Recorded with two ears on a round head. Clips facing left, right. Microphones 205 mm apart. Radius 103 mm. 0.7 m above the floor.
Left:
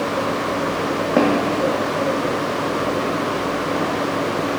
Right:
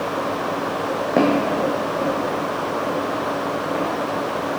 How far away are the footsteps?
About 1.6 m.